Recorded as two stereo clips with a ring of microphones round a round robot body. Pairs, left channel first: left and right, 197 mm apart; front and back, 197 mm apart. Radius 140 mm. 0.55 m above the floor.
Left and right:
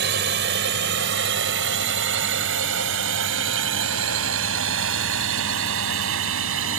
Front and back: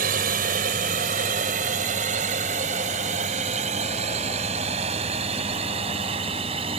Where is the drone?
130° right; by 6.8 s 110° right.